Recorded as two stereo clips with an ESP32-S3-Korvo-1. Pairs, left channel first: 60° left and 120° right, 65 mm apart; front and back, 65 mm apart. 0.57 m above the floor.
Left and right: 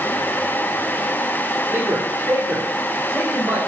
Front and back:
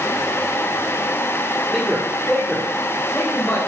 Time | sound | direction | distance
1.7 | a man speaking | 95° right | 1.5 m